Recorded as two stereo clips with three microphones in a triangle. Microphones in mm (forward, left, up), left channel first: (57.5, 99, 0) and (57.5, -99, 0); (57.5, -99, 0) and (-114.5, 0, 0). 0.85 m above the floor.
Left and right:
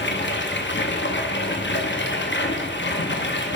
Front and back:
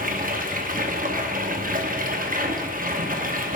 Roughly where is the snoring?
No snoring in this recording.